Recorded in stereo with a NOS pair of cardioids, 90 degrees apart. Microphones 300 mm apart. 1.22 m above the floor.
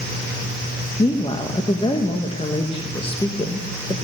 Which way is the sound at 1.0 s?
20° left.